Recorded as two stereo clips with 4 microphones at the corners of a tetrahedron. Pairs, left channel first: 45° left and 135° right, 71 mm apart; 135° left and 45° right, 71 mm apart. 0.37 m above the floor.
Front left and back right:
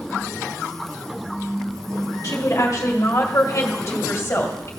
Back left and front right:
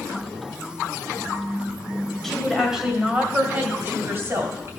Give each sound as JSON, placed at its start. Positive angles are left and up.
{"t": 2.2, "sound": "a woman speaking", "azimuth_deg": 50, "distance_m": 1.7}